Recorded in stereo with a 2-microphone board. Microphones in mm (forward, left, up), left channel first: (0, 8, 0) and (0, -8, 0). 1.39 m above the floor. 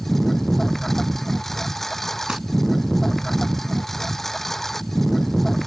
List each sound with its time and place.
0.0 s a lawn mower: 10° left (ahead or behind)
2.3 s crumpling: 55° right (ahead or behind)